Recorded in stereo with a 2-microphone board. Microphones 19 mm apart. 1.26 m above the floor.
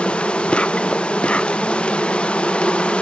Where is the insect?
75° left (ahead or behind), 0.8 m.